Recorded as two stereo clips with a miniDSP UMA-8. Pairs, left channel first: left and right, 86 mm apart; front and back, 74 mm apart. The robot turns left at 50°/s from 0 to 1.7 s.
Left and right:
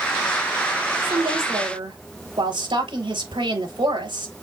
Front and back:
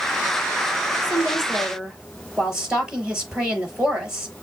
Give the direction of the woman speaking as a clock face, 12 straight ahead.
2 o'clock.